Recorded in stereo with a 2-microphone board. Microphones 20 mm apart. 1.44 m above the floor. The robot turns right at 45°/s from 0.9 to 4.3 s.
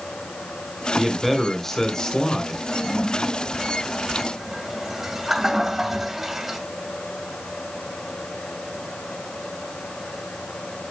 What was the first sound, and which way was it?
A man speaking, 15° right.